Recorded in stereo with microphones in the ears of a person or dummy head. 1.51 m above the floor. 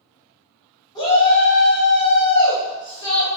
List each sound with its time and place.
0.9 s a shout: 20° left (ahead or behind), 1.2 m